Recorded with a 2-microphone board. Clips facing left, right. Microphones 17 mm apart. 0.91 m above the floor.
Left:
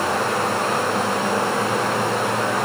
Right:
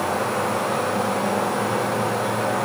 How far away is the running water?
About 1.8 m.